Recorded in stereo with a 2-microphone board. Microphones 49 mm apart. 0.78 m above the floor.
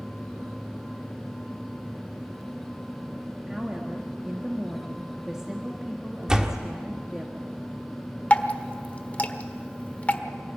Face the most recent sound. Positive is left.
turn(degrees=30)  # may be behind; listen again after turning